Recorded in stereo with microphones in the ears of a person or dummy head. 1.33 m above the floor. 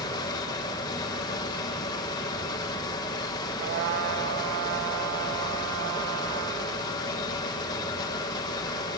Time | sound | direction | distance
0.0 | a fan | 20° left (ahead or behind) | 2 m
3.6 | a trumpet | 65° right (ahead or behind) | 2 m